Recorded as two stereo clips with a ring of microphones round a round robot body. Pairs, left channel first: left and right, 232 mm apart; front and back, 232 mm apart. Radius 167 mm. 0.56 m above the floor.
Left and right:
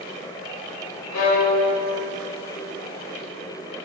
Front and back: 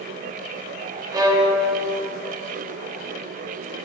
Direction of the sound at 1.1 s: 105° left.